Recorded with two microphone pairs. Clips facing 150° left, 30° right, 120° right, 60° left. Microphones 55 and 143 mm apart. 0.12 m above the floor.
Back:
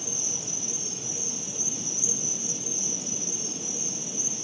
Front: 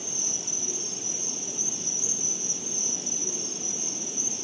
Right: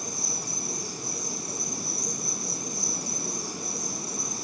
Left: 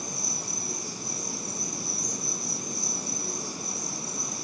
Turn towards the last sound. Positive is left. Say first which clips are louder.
# back 1 dB, right 1 dB
turn(degrees=-65)